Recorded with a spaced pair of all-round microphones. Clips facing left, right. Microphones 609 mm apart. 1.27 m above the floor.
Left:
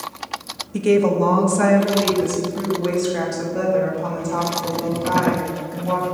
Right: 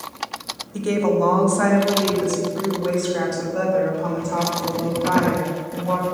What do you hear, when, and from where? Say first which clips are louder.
0.7 s a woman speaking: left 3 dB; 55° left (ahead or behind), 0.8 m; by 6.0 s 45° left (ahead or behind), 4 m